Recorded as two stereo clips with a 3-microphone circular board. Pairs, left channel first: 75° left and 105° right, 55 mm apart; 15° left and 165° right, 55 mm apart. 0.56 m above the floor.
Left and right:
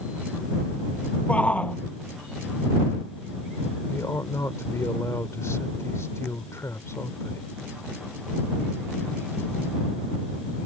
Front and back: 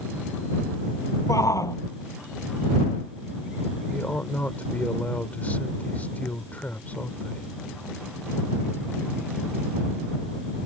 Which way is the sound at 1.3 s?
10° left.